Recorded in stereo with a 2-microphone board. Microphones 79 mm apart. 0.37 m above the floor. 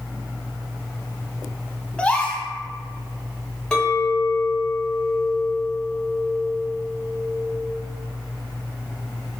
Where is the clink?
10° left (ahead or behind), 1.1 m.